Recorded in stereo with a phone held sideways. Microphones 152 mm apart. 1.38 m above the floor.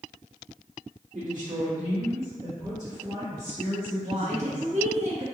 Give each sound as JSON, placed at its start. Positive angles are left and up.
{"t": 1.1, "sound": "a woman speaking", "side_deg": -70, "distance_m": 1.3}
{"t": 4.0, "sound": "a woman speaking", "side_deg": -55, "distance_m": 0.9}